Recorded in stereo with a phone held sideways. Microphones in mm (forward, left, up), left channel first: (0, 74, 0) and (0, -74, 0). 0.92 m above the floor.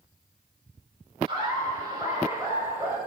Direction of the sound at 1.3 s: 35° right (ahead or behind).